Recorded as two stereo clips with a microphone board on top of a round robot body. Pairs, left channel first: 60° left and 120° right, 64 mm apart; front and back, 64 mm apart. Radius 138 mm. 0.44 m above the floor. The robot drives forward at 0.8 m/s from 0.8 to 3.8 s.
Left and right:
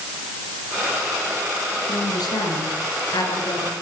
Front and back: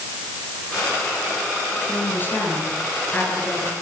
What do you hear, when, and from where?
1.9 s a woman speaking: 60° left, 9.5 m; by 3.7 s 65° left, 9 m